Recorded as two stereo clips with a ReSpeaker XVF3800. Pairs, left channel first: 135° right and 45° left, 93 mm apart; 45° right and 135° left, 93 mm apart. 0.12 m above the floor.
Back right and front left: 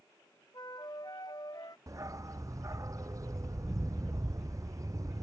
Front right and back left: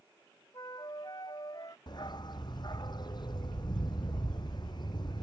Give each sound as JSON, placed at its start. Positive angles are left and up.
{"t": 0.5, "sound": "a flute", "azimuth_deg": -90}
{"t": 1.9, "sound": "a dog barking", "azimuth_deg": -10}